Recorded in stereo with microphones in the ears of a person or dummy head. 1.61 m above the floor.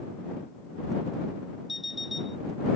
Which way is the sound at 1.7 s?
Centre (ahead or behind).